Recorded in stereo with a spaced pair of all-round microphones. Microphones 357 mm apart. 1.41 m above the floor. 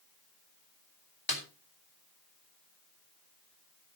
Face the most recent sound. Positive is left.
turn(degrees=70)  # may be behind; listen again after turning